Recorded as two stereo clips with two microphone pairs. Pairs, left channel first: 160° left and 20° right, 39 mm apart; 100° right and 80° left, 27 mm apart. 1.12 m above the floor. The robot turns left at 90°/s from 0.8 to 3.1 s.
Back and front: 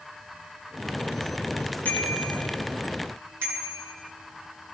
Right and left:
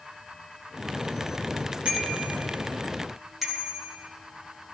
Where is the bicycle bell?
110° left, 8 m; by 4.0 s straight ahead, 8 m.